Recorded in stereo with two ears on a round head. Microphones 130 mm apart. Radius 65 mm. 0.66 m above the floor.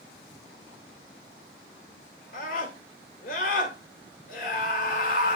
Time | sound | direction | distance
2.3 | a scream | 65° left (ahead or behind) | 1.9 m